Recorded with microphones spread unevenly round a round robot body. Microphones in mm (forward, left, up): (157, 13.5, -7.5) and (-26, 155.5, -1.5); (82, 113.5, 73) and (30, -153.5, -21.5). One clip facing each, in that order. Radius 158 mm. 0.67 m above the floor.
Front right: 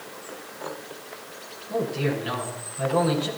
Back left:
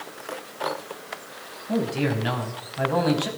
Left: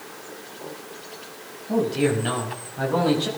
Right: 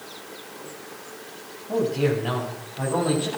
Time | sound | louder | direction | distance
1.7 | a man speaking | back left 2 dB, left 1 dB | 145° left | 5 m